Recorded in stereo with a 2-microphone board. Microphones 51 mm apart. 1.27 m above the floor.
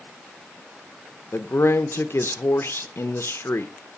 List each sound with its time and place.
1.3 s a man speaking: 55° left (ahead or behind), 0.8 m